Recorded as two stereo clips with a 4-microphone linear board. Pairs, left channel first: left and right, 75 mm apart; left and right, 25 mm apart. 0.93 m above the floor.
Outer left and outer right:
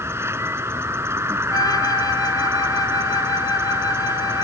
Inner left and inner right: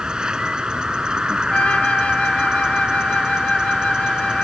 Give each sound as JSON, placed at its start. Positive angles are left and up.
{"t": 0.0, "sound": "an insect", "side_deg": -35}
{"t": 1.5, "sound": "a flute", "side_deg": 55}